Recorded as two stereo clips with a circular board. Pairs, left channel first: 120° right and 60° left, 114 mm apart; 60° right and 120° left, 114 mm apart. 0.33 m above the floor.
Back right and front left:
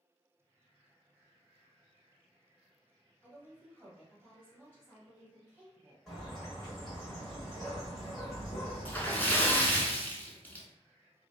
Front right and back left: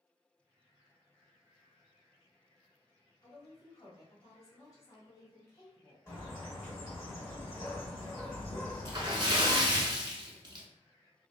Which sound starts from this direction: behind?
A splash, at 8.8 s.